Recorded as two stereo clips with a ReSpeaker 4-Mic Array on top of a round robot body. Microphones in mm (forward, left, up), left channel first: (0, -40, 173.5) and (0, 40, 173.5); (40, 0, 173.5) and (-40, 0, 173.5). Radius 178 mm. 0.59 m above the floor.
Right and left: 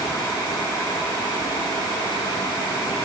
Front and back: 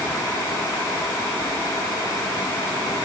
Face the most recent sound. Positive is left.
No sound to turn to.